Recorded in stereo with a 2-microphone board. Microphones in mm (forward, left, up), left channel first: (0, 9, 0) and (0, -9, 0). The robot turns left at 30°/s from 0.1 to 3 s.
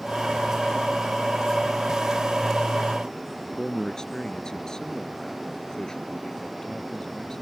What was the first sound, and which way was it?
A man speaking, 35° left (ahead or behind).